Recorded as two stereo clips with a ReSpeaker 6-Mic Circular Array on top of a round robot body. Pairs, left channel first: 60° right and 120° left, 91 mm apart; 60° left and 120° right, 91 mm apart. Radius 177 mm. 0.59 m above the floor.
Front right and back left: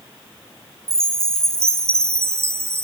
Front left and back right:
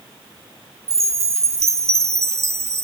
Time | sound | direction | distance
0.9 | a chime | straight behind | 0.8 m